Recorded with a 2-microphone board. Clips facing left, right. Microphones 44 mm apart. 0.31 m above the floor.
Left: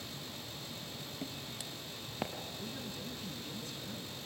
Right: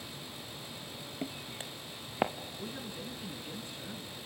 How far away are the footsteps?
About 1.1 m.